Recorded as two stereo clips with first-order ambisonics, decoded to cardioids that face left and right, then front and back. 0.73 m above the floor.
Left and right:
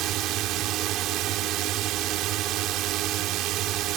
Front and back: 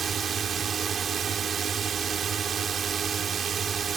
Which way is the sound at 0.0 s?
120° right.